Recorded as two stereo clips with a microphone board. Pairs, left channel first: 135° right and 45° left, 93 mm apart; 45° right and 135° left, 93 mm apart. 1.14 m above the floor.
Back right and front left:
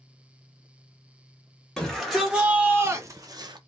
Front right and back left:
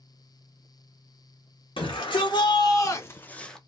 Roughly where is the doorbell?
No doorbell in this recording.